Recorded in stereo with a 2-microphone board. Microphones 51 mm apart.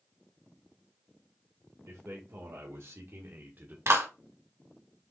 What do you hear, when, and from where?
1.9 s a man speaking: 75° right (ahead or behind), 1.6 m; by 3.8 s 40° right (ahead or behind), 1.2 m
3.9 s a clap: 65° right (ahead or behind), 1.6 m